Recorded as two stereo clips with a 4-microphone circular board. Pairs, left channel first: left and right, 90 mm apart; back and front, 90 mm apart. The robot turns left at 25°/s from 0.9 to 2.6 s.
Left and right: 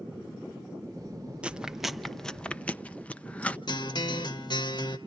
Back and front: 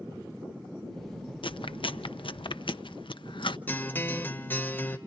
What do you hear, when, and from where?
1.4 s chewing: 165° right, 0.8 m; by 3.6 s 165° left, 0.8 m
3.7 s a guitar: 115° left, 2.0 m